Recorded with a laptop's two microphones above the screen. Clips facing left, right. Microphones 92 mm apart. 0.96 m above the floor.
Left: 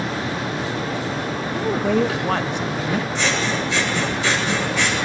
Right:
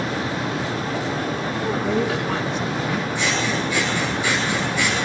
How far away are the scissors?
About 8 m.